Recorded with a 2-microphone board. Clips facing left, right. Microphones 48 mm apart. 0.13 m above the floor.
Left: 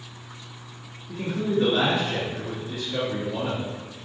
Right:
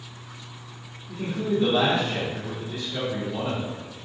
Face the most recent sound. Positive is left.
turn(degrees=40)  # may be behind; listen again after turning